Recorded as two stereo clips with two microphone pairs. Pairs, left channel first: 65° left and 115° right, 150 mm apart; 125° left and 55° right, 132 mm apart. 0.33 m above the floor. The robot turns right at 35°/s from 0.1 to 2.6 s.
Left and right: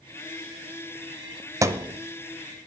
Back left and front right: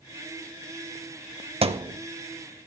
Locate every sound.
1.6 s a thud: 50° right, 0.5 m; by 2.0 s 40° right, 0.5 m